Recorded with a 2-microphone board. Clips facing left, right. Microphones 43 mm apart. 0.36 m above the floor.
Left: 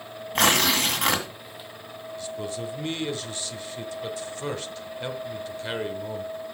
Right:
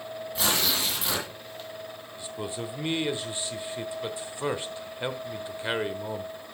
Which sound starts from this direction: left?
Tearing paper, at 0.3 s.